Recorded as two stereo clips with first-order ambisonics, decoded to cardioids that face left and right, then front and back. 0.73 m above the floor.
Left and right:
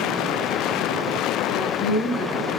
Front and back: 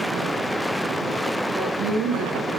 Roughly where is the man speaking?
Behind left.